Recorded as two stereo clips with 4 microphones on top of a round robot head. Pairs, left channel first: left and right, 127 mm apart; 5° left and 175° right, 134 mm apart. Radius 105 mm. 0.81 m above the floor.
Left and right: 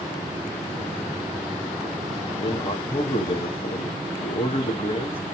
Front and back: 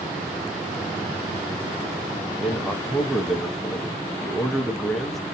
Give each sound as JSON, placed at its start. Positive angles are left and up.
{"t": 2.3, "sound": "a man speaking", "azimuth_deg": 90, "distance_m": 1.0}